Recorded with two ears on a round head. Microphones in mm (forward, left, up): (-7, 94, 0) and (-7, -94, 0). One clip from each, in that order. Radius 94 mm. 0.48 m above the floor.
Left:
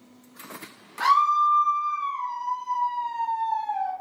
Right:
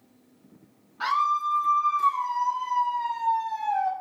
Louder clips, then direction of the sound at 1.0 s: Left 5 dB; 30° left (ahead or behind).